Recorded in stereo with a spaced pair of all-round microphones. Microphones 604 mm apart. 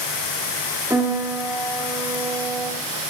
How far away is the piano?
About 2.5 m.